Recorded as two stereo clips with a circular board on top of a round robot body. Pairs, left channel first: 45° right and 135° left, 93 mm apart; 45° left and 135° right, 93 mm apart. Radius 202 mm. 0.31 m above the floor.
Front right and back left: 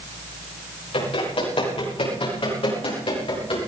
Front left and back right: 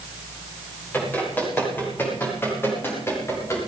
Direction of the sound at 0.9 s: 25° right.